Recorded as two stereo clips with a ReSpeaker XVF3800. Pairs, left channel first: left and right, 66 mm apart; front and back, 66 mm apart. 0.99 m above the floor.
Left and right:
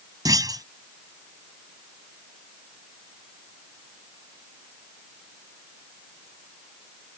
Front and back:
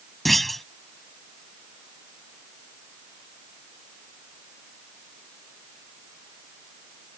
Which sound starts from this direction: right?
A clunk, at 0.2 s.